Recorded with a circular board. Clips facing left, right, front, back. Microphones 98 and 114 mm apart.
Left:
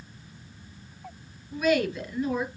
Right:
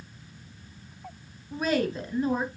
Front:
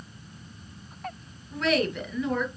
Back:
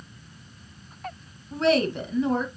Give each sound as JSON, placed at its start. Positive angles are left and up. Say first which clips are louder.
{"t": 1.5, "sound": "a woman speaking", "louder": "left 2 dB, back 4 dB", "azimuth_deg": -130, "distance_m": 2.5}